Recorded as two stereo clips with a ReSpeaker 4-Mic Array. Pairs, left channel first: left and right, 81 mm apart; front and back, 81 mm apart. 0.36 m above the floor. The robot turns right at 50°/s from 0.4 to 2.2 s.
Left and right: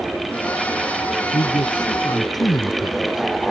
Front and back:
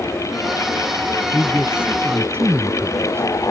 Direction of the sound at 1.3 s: 80° left.